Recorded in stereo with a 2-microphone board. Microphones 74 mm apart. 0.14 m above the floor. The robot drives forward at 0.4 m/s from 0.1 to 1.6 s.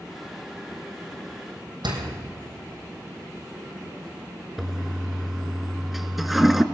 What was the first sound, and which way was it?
A door slam, 80° right.